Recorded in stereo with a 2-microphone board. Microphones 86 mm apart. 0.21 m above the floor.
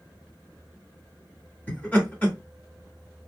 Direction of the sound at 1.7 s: 20° left (ahead or behind).